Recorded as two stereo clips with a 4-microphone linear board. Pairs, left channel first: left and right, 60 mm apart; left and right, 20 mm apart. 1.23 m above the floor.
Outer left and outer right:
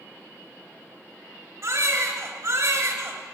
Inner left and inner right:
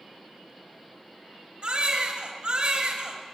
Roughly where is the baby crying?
Right.